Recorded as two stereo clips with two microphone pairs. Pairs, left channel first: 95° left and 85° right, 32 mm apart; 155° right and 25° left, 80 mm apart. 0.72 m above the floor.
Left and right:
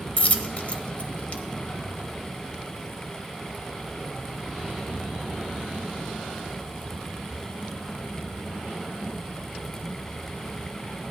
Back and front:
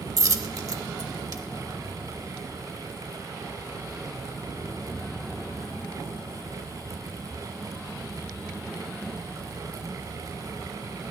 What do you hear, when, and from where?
0.2 s a dropped coin: 55° left, 0.8 m